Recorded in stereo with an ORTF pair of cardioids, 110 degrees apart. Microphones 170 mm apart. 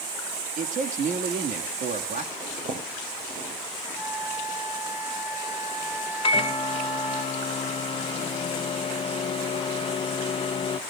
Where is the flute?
10° right, 9.5 m.